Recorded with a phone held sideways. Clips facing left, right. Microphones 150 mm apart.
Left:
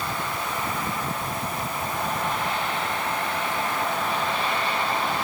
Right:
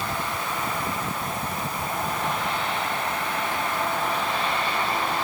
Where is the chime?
No chime in this recording.